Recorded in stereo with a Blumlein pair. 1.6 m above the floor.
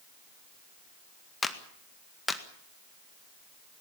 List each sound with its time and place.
1.4 s a clap: 10° left, 1.8 m